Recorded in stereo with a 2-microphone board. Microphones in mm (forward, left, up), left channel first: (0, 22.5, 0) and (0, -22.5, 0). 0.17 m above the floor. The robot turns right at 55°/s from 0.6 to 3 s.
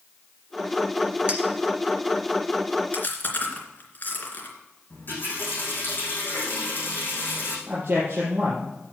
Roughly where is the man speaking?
Right.